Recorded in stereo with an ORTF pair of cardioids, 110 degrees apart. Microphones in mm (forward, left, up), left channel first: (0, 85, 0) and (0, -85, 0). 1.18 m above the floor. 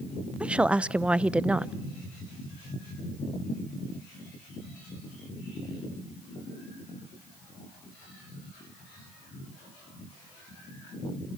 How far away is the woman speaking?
About 0.6 m.